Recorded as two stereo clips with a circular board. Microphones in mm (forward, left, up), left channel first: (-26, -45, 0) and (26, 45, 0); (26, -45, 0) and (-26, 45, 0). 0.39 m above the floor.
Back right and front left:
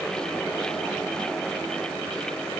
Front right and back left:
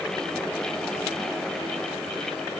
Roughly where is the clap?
No clap in this recording.